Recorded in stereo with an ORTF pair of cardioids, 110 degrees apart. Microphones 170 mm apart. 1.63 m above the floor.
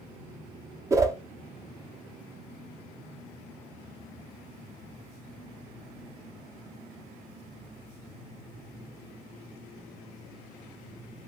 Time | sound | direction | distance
0.9 | a whoosh | 20° right | 0.5 m